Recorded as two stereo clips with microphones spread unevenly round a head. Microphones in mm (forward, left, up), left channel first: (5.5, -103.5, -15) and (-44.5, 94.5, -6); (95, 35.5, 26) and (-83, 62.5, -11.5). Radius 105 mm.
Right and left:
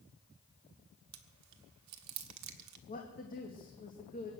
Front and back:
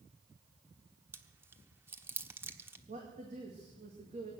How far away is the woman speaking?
About 2 m.